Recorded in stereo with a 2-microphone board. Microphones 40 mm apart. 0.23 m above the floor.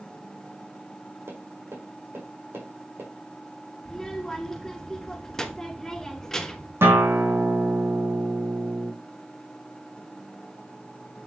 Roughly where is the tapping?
Right.